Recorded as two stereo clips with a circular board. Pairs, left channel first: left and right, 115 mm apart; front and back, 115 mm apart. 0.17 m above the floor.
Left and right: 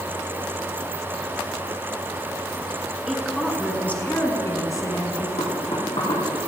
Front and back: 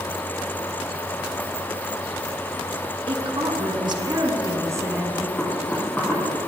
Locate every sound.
3.1 s a woman speaking: straight behind, 2 m; by 5.3 s 115° left, 2.0 m
5.4 s knocking: 75° left, 4 m